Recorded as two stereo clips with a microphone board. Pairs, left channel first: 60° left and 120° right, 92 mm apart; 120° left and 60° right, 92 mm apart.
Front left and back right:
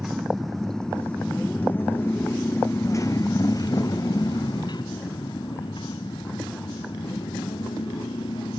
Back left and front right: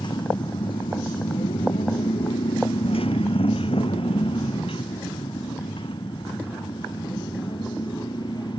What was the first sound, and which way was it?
A motorcycle, 155° left.